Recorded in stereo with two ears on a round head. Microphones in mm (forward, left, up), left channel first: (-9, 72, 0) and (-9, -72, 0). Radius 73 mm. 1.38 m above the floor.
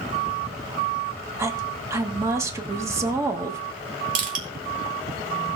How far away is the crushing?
About 3 m.